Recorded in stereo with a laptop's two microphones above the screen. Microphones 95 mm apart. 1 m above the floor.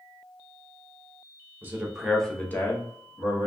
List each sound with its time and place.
1.6 s a man speaking: 20° right (ahead or behind), 0.7 m; by 3.5 s 45° left (ahead or behind), 1.1 m